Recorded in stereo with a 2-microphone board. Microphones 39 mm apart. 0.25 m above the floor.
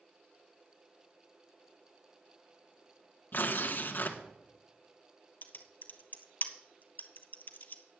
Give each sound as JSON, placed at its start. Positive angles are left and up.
{"t": 3.3, "sound": "tearing paper", "side_deg": 60, "distance_m": 1.2}
{"t": 5.4, "sound": "typing on a keyboard", "side_deg": 50, "distance_m": 0.9}